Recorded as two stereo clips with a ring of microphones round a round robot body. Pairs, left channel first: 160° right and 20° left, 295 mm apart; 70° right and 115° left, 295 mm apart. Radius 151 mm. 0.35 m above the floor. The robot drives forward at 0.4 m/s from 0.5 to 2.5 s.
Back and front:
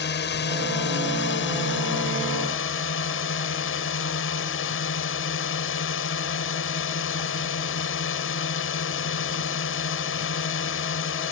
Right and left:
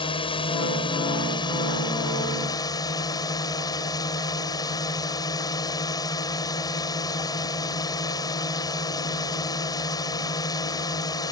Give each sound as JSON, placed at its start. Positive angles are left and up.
{"t": 0.0, "sound": "a drone", "azimuth_deg": -130}